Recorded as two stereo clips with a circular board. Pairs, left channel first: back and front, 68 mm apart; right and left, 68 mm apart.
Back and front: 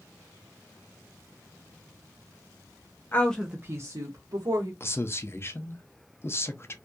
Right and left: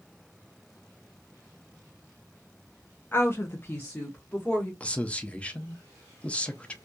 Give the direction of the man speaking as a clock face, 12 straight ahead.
5 o'clock.